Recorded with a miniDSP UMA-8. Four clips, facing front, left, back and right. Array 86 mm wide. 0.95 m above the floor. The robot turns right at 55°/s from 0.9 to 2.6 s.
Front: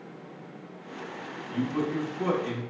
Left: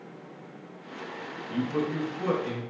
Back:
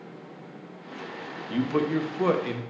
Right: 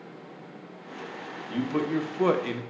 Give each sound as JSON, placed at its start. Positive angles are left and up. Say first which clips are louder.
{"t": 1.5, "sound": "a man speaking", "louder": "right 2 dB, back 4 dB", "azimuth_deg": -170, "distance_m": 0.5}